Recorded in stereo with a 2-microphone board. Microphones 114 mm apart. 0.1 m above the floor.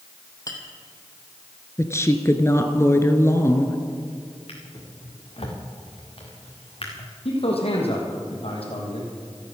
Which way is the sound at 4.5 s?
55° left (ahead or behind).